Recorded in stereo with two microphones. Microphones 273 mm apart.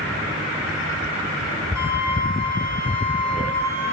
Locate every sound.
1.8 s a flute: 10° right (ahead or behind), 3.5 m